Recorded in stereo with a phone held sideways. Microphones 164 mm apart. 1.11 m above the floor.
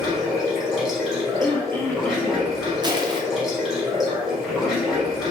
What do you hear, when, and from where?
0.0 s running water: 5° right (ahead or behind), 1.5 m
1.4 s throat clearing: 10° left (ahead or behind), 0.5 m
2.8 s crushing: 25° right (ahead or behind), 0.6 m